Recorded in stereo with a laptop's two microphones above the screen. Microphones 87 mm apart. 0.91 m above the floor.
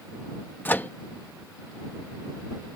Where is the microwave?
25° left (ahead or behind).